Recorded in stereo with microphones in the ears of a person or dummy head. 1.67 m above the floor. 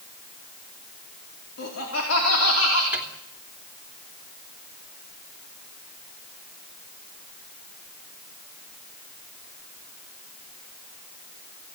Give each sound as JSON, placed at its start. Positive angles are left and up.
{"t": 1.6, "sound": "laughter", "side_deg": 85, "distance_m": 4.5}
{"t": 2.9, "sound": "a microwave", "side_deg": -5, "distance_m": 2.5}